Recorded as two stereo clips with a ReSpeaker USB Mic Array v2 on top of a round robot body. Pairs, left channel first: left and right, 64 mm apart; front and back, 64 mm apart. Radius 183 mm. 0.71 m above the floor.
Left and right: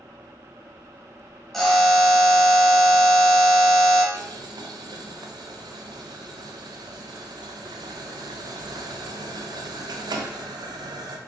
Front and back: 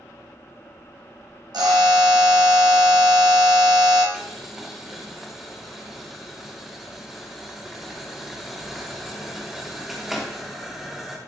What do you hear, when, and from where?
1.5 s a buzzer: 175° left, 1.6 m
4.1 s boiling: 95° right, 0.6 m